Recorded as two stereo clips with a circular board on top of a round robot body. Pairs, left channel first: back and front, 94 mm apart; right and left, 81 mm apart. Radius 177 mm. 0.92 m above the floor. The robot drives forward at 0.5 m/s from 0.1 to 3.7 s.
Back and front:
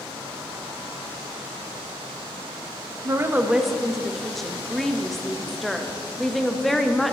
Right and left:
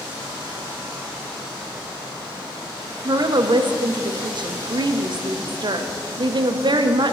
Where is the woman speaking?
50° left, 0.6 m; by 7.1 s 90° left, 0.5 m.